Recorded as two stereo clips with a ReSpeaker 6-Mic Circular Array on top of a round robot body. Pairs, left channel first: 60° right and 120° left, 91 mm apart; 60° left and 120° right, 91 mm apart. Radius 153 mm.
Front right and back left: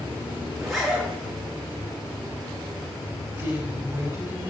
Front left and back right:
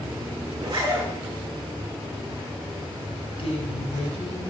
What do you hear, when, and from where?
0.6 s a zipper: 155° right, 7.5 m
3.4 s a woman speaking: 55° left, 5.5 m